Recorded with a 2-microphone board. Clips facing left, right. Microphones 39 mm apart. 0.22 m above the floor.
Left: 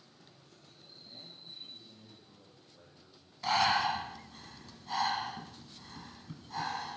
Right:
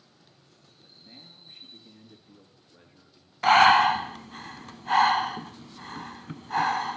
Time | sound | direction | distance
0.8 | a man speaking | 50° right (ahead or behind) | 3.5 m
3.4 | breathing | 60° right (ahead or behind) | 0.6 m